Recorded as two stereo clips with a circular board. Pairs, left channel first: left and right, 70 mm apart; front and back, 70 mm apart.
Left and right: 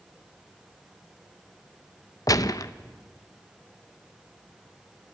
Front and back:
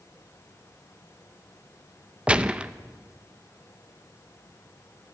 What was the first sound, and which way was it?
A gunshot, 110° left.